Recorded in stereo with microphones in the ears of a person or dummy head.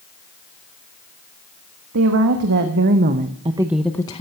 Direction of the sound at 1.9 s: 70° right (ahead or behind).